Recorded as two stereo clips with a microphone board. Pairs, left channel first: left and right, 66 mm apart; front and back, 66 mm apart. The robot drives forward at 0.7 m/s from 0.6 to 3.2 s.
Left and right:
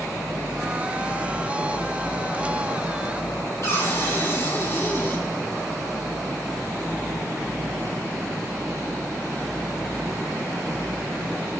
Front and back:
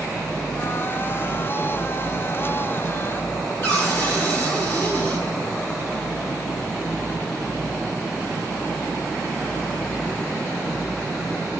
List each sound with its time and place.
3.6 s a cupboard door: 50° left, 5.5 m